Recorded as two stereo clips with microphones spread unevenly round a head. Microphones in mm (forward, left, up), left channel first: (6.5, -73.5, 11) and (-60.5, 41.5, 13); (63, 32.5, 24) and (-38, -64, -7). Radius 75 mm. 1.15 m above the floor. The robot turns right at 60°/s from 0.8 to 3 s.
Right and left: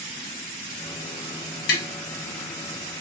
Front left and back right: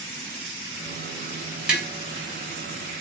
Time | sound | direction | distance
1.7 | tapping | 55° right | 1.1 m